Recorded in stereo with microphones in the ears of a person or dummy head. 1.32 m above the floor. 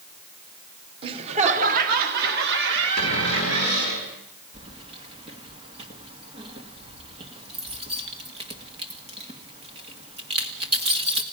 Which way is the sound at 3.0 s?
80° right.